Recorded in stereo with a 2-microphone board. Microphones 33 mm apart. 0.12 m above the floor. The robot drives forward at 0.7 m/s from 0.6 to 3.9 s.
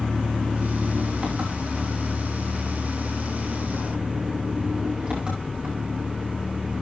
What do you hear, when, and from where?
0.0 s an engine running: 45° right (ahead or behind), 7 m; by 6.8 s 35° right (ahead or behind), 9 m